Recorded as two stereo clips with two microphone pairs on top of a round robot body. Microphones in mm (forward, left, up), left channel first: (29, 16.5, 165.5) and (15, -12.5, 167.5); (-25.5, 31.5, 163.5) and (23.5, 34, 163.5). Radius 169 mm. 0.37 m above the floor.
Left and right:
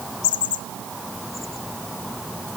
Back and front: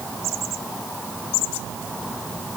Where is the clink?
I don't hear a clink.